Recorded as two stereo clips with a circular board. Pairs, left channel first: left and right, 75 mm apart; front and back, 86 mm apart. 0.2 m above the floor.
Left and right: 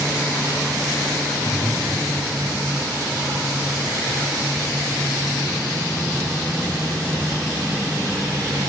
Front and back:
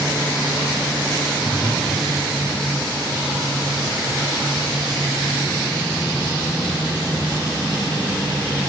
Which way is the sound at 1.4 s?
175° right.